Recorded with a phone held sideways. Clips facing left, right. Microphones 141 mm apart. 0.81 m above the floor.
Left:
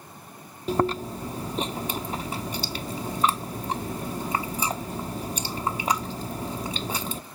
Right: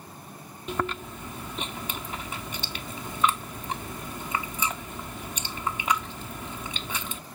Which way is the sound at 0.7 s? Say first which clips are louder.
Left 7 dB; 35° left (ahead or behind).